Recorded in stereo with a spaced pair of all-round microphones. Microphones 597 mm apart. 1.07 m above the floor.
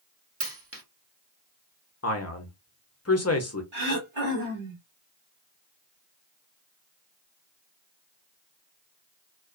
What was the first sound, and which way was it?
A dropped coin, 25° right (ahead or behind).